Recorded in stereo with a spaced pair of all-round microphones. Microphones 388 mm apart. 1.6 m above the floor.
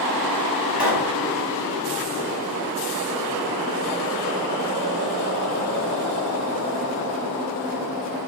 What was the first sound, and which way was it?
A pop, 75° left (ahead or behind).